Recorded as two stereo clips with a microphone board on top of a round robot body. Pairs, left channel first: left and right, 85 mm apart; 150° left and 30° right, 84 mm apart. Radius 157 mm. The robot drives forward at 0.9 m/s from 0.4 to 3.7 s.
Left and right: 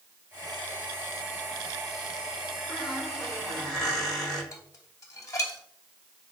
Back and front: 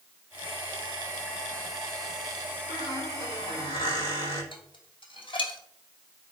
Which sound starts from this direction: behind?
A squeak, at 2.7 s.